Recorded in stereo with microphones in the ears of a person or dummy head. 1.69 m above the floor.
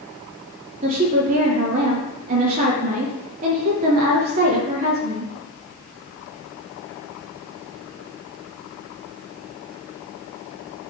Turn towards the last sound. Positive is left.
turn(degrees=-35)  # may be behind; listen again after turning